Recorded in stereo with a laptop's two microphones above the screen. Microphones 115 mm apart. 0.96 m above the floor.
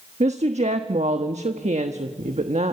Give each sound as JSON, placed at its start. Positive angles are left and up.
{"t": 0.2, "sound": "a woman speaking", "side_deg": -75, "distance_m": 1.2}